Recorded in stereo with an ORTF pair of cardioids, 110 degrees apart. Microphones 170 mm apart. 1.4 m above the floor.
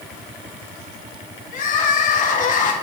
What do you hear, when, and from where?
1.5 s crying: 50° left, 1.2 m